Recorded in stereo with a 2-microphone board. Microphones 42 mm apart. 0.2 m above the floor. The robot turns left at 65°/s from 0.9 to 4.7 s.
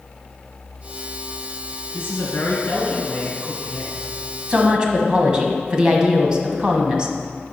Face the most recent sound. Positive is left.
turn(degrees=-20)  # may be behind; listen again after turning